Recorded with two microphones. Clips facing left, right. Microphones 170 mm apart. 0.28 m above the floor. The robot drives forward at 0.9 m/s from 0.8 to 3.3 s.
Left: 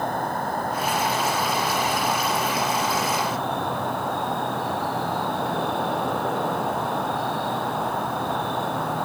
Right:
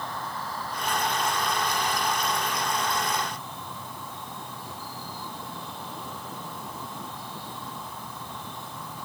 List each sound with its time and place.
0.0 s an insect: 55° left (ahead or behind); by 9.1 s 70° left (ahead or behind)